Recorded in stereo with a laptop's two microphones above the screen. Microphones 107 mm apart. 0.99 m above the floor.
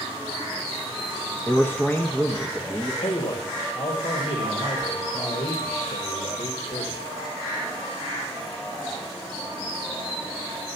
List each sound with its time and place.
1.5 s a man speaking: 15° left (ahead or behind), 0.5 m; by 2.9 s 20° left (ahead or behind), 1.3 m
3.0 s a man speaking: 75° left (ahead or behind), 1.3 m